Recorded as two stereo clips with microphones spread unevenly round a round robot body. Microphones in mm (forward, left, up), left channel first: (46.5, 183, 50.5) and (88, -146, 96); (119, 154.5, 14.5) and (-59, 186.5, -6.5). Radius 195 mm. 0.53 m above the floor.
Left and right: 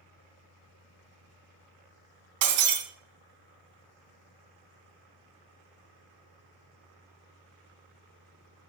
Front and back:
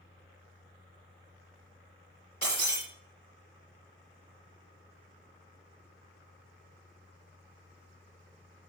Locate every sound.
2.4 s breaking glass: 85° right, 2.5 m